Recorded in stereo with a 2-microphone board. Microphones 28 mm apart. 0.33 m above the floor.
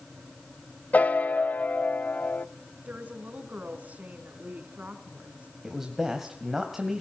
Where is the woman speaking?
65° right (ahead or behind), 4 m.